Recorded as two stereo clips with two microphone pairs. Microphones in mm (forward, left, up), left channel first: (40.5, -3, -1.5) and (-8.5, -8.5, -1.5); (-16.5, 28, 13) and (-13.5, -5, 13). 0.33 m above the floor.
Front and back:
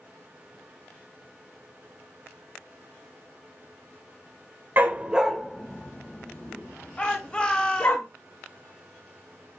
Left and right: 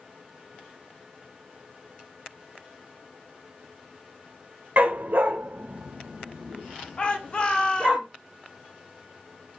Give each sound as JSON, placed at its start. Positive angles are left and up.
{"t": 4.8, "sound": "a dog barking", "azimuth_deg": -125, "distance_m": 0.7}
{"t": 7.0, "sound": "a shout", "azimuth_deg": 60, "distance_m": 1.2}